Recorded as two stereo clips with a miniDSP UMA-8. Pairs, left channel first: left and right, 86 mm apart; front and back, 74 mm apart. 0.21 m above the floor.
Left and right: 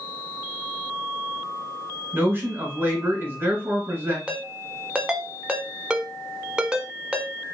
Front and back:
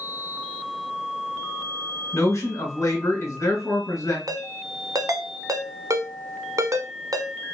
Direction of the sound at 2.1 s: 35° right.